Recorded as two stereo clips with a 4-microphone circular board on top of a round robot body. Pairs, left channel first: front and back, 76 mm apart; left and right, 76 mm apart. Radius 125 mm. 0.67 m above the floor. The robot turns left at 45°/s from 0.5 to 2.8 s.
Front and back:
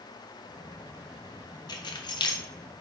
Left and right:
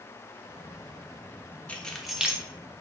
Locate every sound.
1.7 s keys jangling: 15° left, 0.6 m; by 2.4 s 15° right, 0.6 m